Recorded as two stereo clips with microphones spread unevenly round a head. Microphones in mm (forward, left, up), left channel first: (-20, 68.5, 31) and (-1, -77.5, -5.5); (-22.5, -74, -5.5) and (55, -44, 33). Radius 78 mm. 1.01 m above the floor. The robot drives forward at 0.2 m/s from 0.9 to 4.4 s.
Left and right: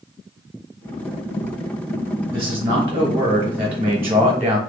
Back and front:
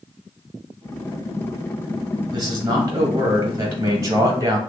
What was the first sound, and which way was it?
A man speaking, 20° right.